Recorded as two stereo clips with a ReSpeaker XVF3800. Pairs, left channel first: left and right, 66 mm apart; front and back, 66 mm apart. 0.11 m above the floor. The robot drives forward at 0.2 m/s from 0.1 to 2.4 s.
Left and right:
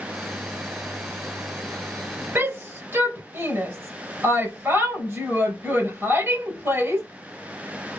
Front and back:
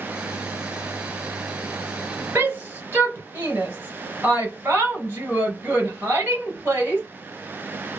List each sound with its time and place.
2.4 s a shout: 130° right, 2.5 m